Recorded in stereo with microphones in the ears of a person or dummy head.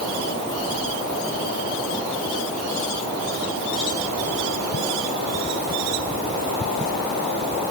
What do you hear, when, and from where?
Only background noise.